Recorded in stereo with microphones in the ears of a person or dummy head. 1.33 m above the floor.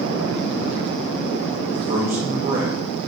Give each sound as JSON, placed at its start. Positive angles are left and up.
{"t": 1.7, "sound": "a man speaking", "side_deg": -30, "distance_m": 1.4}